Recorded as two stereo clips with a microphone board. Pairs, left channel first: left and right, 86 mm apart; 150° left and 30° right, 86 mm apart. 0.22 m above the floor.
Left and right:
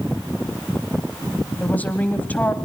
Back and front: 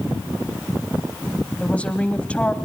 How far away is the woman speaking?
About 1.0 m.